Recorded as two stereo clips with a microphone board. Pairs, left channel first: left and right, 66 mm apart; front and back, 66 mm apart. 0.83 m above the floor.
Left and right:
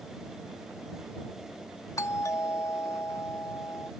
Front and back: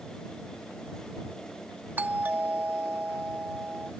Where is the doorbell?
120° left.